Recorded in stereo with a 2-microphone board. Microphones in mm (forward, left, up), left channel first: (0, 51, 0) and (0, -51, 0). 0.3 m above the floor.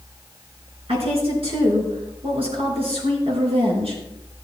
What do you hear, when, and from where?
0.9 s a woman speaking: 65° right (ahead or behind), 4 m